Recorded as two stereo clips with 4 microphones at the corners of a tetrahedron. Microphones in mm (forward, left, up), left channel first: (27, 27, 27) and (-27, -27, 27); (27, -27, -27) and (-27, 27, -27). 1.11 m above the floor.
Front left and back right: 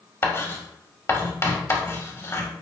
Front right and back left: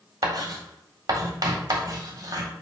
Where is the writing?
95° left, 1.9 m.